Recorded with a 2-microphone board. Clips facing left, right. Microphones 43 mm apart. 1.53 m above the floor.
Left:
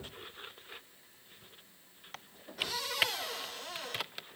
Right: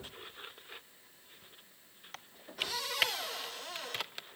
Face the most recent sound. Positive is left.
turn(degrees=0)  # may be behind; listen again after turning